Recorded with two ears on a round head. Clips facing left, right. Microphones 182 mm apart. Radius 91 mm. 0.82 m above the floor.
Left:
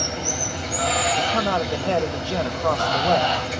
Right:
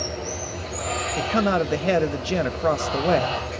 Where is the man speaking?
25° right (ahead or behind), 0.5 m.